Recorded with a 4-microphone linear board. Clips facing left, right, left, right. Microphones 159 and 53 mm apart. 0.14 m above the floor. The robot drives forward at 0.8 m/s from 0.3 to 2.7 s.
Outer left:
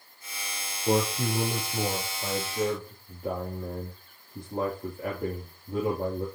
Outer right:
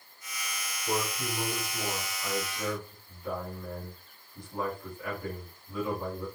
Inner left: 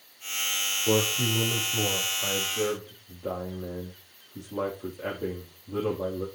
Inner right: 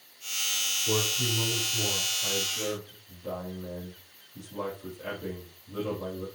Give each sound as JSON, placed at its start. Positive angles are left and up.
{"t": 0.9, "sound": "a man speaking", "side_deg": 65, "distance_m": 3.5}